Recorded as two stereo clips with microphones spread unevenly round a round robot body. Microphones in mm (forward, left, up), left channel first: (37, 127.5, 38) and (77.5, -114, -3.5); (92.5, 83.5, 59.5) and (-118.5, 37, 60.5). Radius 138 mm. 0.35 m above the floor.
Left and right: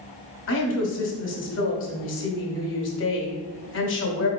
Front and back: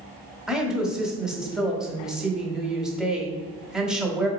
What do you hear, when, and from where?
0.5 s a woman speaking: 105° left, 1.3 m